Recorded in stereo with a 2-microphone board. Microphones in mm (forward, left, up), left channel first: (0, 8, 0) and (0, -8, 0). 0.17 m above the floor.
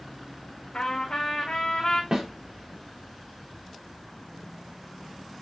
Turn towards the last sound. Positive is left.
turn(degrees=-40)  # may be behind; listen again after turning